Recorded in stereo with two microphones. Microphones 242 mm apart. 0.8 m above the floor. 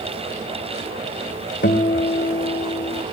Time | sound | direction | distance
1.6 | a guitar | 50° left (ahead or behind) | 2 m